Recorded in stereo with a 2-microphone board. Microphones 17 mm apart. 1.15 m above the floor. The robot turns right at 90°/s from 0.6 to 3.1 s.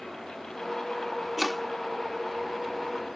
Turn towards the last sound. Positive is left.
turn(degrees=30)  # may be behind; listen again after turning